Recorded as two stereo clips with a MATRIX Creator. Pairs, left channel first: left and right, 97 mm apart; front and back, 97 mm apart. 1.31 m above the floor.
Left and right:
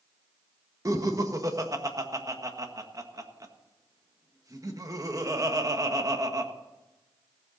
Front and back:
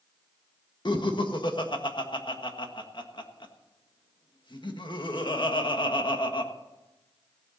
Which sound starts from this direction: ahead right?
Laughter, at 0.8 s.